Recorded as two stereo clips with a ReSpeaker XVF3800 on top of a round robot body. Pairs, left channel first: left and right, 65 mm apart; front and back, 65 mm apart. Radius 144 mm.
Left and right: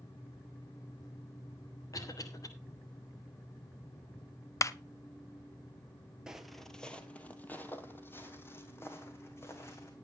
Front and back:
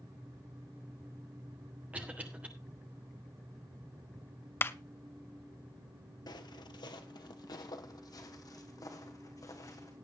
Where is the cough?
110° left, 3.5 m.